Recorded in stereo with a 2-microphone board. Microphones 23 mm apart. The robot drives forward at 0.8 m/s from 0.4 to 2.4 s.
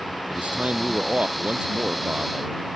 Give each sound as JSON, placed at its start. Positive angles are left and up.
{"t": 0.3, "sound": "a man speaking", "side_deg": -70}